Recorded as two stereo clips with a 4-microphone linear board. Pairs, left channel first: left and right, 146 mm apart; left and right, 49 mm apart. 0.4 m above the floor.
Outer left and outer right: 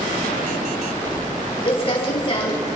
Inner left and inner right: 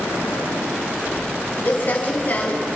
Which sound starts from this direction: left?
Crumpling, at 1.6 s.